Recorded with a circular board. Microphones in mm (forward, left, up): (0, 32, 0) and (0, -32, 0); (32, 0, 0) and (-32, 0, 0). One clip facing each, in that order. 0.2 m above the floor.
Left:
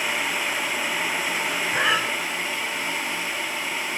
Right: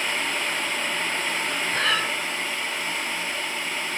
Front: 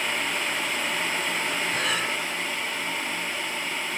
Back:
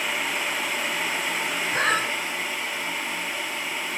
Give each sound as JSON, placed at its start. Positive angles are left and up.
{"t": 1.7, "sound": "breathing", "azimuth_deg": 155, "distance_m": 2.5}